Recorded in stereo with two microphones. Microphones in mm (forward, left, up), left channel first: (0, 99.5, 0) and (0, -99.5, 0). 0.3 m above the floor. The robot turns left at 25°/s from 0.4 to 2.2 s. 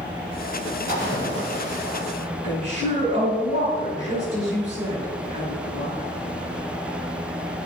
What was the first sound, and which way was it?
A splash, 80° right.